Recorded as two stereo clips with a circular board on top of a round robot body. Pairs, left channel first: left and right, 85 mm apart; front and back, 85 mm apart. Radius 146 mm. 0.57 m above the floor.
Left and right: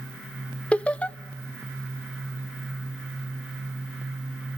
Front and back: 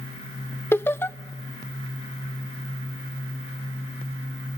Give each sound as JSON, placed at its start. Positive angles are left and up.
{"t": 0.7, "sound": "laughter", "azimuth_deg": 30, "distance_m": 0.6}